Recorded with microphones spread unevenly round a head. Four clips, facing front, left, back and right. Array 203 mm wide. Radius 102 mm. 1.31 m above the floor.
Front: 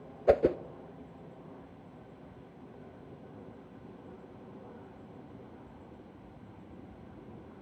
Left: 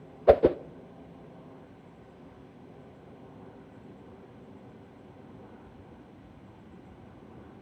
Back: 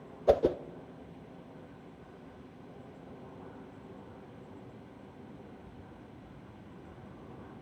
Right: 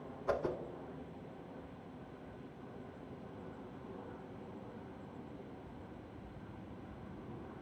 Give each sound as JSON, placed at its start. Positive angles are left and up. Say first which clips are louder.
{"t": 0.3, "sound": "a whoosh", "louder": "left 16 dB, front 1 dB", "azimuth_deg": 80, "distance_m": 0.6}